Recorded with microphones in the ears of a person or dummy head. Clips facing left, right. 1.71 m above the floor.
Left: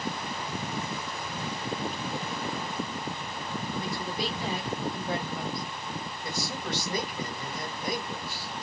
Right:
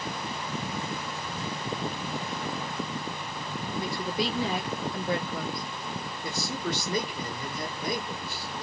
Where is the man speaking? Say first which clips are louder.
Right 3 dB; 70° right (ahead or behind), 2 m.